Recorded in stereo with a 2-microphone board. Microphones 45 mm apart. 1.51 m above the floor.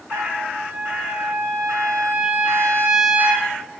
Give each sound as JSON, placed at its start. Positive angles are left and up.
{"t": 0.1, "sound": "a trumpet", "side_deg": -85, "distance_m": 6.0}